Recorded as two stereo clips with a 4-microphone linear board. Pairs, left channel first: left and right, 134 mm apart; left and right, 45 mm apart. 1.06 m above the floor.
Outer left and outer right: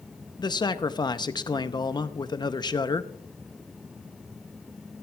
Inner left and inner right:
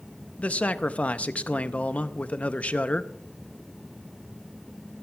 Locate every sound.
0.4 s a man speaking: 30° left (ahead or behind), 0.6 m